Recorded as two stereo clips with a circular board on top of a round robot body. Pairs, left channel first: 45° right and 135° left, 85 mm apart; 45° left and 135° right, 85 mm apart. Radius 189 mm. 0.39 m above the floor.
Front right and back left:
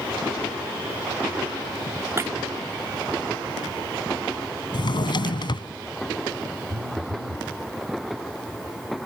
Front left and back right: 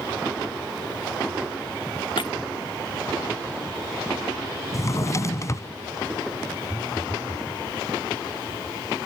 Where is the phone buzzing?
155° left.